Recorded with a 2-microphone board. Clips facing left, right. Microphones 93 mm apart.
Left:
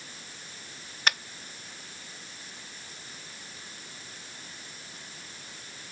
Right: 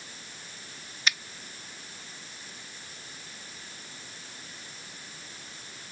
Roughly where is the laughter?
I don't hear laughter.